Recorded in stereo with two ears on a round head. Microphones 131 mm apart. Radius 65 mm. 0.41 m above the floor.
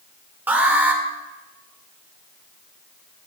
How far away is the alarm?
About 2 m.